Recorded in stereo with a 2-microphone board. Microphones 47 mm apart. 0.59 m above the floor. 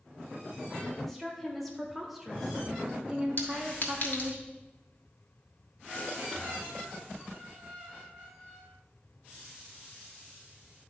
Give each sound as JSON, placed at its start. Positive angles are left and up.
{"t": 1.0, "sound": "a woman speaking", "side_deg": 5, "distance_m": 1.8}
{"t": 3.4, "sound": "a clink", "side_deg": 55, "distance_m": 1.4}